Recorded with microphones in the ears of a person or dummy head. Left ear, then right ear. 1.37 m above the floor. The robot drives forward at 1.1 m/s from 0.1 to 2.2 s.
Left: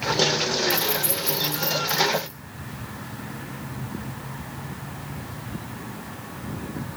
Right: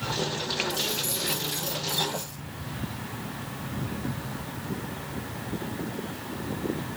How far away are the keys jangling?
About 1.0 m.